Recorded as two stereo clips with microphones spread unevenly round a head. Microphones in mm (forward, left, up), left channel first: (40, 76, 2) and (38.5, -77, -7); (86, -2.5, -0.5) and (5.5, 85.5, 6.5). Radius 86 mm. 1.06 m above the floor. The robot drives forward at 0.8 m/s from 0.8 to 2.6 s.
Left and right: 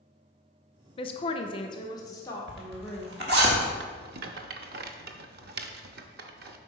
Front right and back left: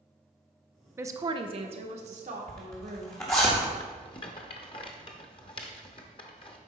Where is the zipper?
120° right, 1.4 m; by 3.7 s 125° right, 1.5 m.